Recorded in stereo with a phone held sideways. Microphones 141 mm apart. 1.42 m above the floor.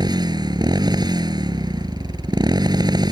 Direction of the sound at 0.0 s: 30° right (ahead or behind).